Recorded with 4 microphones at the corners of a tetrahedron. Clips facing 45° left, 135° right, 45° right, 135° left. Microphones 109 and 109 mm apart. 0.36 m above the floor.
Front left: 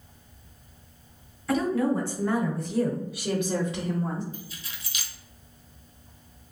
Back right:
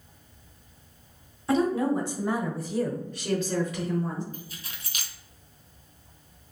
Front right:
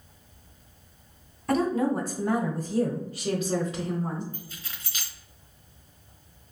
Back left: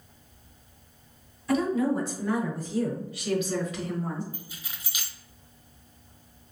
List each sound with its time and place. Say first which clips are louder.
1.5 s a woman speaking: back right 1 dB, even; 80° right, 1.8 m; by 4.2 s 15° left, 1.3 m
4.3 s keys jangling: front left 1 dB, front right 1 dB; 150° right, 0.9 m